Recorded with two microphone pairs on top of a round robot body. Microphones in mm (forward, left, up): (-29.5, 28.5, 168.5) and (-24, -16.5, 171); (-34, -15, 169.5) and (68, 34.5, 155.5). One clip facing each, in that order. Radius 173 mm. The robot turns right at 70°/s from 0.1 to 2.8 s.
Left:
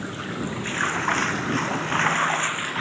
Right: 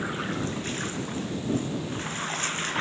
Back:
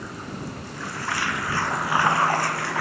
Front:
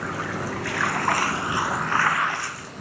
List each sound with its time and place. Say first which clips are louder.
0.0 s running water: even, front 5 dB; straight ahead; by 2.8 s 175° right